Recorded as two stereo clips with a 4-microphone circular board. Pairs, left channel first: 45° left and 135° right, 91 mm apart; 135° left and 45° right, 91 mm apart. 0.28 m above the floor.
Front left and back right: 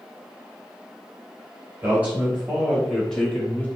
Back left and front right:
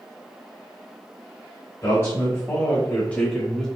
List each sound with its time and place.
1.8 s a man speaking: 165° left, 1.3 m; by 3.7 s 55° left, 1.0 m